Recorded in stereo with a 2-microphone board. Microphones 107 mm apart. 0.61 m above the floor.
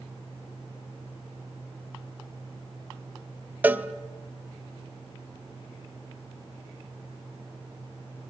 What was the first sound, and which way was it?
A cowbell, 15° right (ahead or behind).